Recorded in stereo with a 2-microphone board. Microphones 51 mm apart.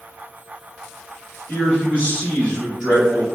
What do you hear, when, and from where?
1.5 s a man speaking: 35° left (ahead or behind), 1.2 m; by 3.4 s 5° right (ahead or behind), 1.0 m